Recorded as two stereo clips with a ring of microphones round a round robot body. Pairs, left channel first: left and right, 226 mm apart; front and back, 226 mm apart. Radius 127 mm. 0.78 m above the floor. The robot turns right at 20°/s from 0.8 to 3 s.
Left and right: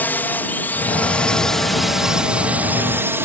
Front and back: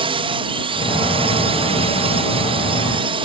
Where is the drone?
160° left; by 3.3 s 155° right.